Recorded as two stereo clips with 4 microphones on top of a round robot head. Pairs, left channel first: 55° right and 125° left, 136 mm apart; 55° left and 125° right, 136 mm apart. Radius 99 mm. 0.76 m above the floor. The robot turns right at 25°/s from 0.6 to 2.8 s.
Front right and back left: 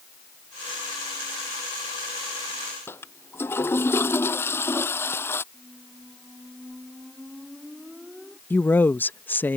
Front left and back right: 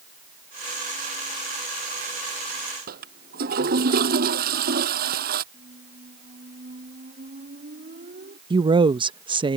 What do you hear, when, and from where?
2.9 s a toilet flushing: 130° right
5.5 s a squeak: 145° right
8.5 s a woman speaking: 120° right